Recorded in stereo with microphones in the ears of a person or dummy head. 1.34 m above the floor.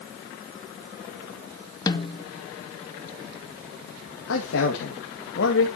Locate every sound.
1.9 s a snare drum: 25° left (ahead or behind), 0.8 m
4.3 s a man speaking: 75° left (ahead or behind), 2.0 m